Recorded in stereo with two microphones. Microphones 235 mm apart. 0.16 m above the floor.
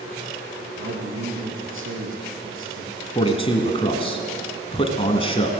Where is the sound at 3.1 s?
25° left (ahead or behind), 1.4 m.